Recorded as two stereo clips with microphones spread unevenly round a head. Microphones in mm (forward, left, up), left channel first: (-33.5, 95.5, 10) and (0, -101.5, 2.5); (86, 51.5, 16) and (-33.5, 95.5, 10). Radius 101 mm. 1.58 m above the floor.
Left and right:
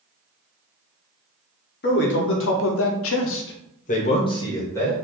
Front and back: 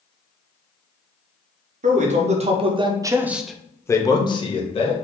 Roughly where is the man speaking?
Behind left.